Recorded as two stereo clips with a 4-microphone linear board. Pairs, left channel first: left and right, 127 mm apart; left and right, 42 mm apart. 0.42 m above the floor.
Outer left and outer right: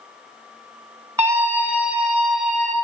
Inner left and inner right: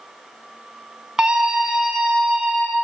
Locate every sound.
1.2 s a scream: 20° right (ahead or behind), 4.5 m; by 2.7 s 5° left (ahead or behind), 5.5 m